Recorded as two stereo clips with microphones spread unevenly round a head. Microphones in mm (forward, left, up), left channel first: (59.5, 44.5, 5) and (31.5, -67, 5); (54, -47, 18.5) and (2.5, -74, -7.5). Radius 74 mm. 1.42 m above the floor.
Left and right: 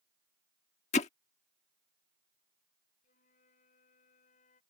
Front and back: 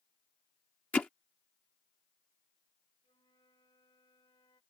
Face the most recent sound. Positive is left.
turn(degrees=70)